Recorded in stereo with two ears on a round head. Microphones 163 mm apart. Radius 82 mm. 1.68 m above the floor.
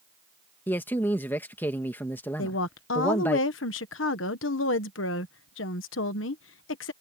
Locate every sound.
0.7 s a man speaking: 10° left (ahead or behind)
2.4 s a woman speaking: 80° left